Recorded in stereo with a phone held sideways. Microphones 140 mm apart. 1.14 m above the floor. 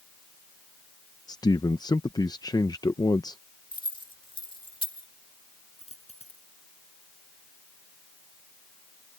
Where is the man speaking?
30° left (ahead or behind).